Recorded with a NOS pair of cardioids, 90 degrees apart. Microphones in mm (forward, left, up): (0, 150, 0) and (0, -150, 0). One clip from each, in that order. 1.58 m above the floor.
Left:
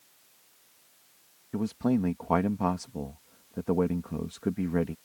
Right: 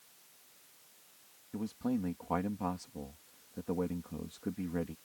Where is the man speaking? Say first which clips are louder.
Left 8 dB; 55° left.